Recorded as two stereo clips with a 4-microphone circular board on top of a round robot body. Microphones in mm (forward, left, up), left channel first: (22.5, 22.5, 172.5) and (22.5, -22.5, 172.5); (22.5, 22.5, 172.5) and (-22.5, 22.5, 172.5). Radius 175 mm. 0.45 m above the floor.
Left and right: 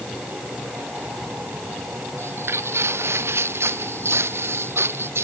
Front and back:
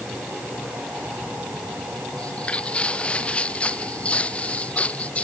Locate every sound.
2.2 s footsteps: 70° right; by 5.2 s 65° right